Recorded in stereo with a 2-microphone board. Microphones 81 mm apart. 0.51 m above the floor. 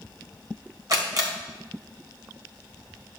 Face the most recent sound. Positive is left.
turn(degrees=-50)  # may be behind; listen again after turning